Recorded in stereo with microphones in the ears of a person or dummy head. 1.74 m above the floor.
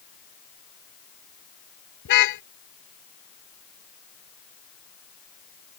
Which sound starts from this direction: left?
A car horn, at 2.0 s.